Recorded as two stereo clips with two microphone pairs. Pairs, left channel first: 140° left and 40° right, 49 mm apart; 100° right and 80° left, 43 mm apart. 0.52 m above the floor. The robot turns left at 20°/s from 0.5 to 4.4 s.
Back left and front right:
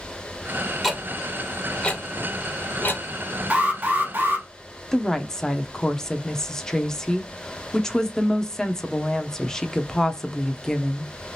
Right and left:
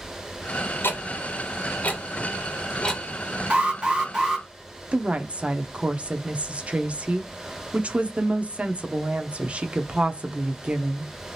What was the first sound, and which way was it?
Ticking, 130° right.